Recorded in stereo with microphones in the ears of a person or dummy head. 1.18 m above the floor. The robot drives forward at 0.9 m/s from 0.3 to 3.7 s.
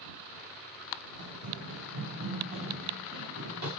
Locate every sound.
1.2 s running footsteps: 65° right (ahead or behind), 4 m; by 3.7 s 80° right, 6 m